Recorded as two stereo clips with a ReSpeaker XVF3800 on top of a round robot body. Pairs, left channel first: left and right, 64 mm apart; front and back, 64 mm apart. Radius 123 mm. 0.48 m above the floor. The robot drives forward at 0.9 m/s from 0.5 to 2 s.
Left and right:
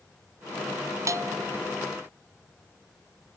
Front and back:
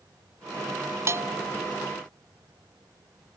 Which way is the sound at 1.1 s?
130° right.